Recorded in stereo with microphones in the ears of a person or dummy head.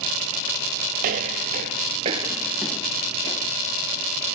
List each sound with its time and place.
1.0 s footsteps: 45° right (ahead or behind); by 3.5 s 30° left (ahead or behind)